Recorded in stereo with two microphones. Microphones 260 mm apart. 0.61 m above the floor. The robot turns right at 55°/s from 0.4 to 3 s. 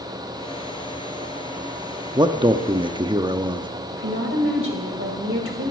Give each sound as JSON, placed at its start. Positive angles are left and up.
{"t": 2.1, "sound": "a man speaking", "side_deg": -15, "distance_m": 0.7}
{"t": 3.9, "sound": "a woman speaking", "side_deg": -55, "distance_m": 2.5}